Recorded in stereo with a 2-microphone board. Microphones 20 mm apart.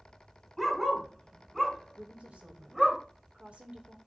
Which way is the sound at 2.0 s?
70° right (ahead or behind).